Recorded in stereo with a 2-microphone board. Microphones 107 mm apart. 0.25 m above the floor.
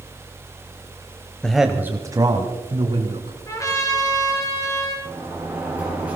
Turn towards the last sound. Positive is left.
turn(degrees=-15)  # may be behind; listen again after turning